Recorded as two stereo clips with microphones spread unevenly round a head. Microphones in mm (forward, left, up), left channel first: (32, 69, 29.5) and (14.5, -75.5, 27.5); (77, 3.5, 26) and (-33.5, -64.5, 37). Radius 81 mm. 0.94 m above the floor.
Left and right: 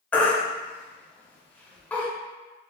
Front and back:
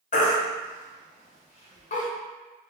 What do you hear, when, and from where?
0.1 s a baby crying: straight ahead, 1.0 m